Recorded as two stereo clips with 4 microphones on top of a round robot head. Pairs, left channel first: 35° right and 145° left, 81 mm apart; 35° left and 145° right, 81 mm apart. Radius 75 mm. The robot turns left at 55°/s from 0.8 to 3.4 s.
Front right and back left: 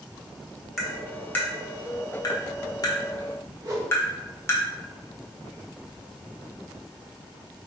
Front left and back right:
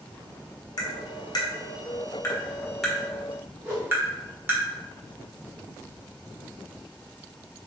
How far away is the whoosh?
About 1.6 m.